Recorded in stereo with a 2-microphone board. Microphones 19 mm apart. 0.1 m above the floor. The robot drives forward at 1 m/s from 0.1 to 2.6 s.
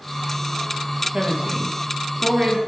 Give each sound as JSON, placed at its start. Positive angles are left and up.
{"t": 1.1, "sound": "a woman speaking", "side_deg": -40, "distance_m": 2.5}